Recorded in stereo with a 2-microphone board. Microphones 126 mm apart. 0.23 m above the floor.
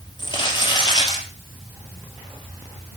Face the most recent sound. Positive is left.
turn(degrees=35)  # may be behind; listen again after turning